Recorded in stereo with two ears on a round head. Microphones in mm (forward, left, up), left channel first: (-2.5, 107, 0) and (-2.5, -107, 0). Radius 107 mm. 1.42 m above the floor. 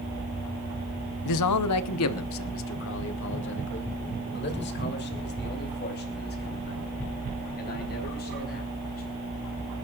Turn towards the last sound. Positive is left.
turn(degrees=40)  # may be behind; listen again after turning